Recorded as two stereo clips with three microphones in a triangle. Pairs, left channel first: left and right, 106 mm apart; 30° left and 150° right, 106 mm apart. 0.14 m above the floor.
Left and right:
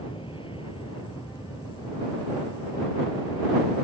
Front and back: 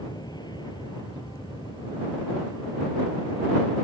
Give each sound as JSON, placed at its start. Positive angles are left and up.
{"t": 0.0, "sound": "an aircraft", "azimuth_deg": 70}